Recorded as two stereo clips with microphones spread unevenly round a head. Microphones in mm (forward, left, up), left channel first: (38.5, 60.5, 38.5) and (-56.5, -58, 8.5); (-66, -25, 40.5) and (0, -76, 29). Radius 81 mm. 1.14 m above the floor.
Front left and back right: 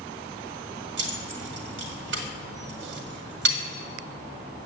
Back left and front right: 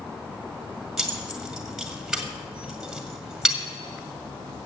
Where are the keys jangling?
125° right, 1.8 m.